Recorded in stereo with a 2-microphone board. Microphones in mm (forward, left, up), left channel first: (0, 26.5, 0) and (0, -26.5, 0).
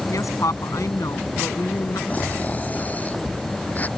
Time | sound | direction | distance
0.1 | a woman speaking | 75° left (ahead or behind) | ?
2.1 | snoring | 30° left (ahead or behind) | ?